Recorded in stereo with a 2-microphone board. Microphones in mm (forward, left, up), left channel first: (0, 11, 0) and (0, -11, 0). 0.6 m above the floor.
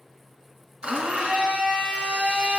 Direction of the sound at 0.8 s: 55° right (ahead or behind).